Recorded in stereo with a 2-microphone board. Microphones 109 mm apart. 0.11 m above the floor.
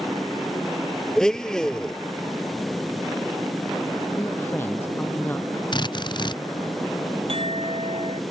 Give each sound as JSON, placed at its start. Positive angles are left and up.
{"t": 1.2, "sound": "a blender", "side_deg": 5}
{"t": 4.2, "sound": "a man speaking", "side_deg": 20}
{"t": 5.7, "sound": "a drill", "side_deg": 45}
{"t": 7.3, "sound": "a clink", "side_deg": -60}